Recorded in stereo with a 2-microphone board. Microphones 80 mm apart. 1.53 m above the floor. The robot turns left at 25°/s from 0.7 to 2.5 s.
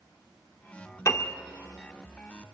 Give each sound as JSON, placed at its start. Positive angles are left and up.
{"t": 1.1, "sound": "a piano", "side_deg": 40, "distance_m": 1.4}